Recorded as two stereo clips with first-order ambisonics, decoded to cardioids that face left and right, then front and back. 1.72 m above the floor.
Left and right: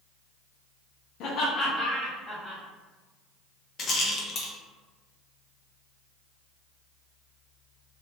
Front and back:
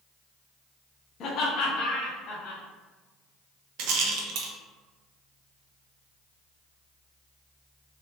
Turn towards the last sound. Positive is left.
turn(degrees=150)